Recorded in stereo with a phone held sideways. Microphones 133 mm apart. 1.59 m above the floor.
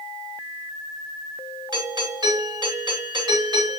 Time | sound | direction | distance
1.7 | a doorbell | 30° right (ahead or behind) | 4 m